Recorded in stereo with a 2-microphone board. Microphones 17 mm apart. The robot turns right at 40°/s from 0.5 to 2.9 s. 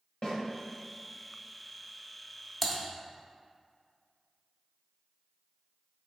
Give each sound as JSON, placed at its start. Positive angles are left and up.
{"t": 0.2, "sound": "a snare drum", "side_deg": 65, "distance_m": 1.2}
{"t": 2.6, "sound": "typing on a keyboard", "side_deg": 5, "distance_m": 0.6}